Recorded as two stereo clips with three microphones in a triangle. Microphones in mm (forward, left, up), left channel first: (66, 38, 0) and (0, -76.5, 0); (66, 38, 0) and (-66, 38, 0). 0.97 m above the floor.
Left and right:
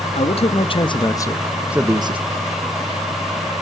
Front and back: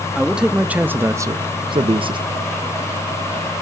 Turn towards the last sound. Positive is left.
turn(degrees=-145)